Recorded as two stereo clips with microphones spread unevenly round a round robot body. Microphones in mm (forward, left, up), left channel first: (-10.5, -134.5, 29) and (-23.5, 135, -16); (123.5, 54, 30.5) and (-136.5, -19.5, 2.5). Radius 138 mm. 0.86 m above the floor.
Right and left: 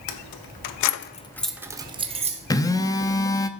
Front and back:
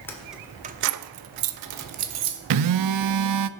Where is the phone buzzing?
165° right, 0.7 m.